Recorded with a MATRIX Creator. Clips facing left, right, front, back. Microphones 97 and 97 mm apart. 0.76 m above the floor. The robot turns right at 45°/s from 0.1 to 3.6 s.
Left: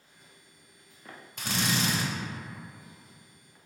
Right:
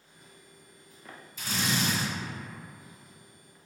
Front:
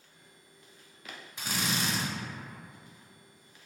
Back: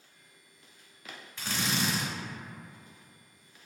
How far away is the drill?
About 0.9 m.